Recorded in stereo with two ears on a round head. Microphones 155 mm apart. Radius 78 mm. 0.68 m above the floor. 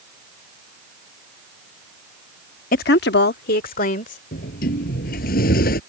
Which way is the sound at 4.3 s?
55° left (ahead or behind).